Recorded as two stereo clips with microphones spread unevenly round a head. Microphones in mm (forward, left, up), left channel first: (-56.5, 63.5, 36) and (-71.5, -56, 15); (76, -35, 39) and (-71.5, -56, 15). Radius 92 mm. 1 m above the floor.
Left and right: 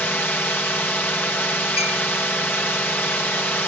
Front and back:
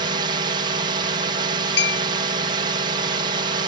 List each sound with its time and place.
0.0 s a drone: 160° left
1.8 s a clink: 25° left